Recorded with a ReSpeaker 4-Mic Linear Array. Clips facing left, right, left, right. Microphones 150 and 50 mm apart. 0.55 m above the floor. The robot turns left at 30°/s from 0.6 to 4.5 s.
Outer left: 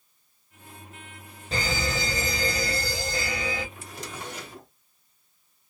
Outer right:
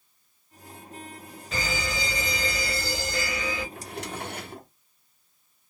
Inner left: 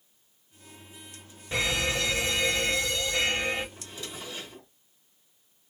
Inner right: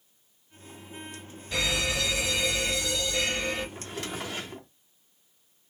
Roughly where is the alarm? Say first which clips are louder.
Outer left 2 dB, inner left 1 dB; behind left.